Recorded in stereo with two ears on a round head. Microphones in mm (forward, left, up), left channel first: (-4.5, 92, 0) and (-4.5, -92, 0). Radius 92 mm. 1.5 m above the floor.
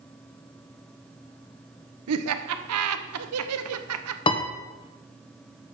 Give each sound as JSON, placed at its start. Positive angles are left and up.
{"t": 2.1, "sound": "laughter", "side_deg": -85, "distance_m": 0.9}
{"t": 4.3, "sound": "a piano", "side_deg": 25, "distance_m": 0.8}